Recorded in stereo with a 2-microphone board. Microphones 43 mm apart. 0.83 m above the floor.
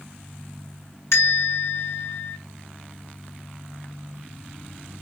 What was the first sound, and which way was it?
A bell, 80° left.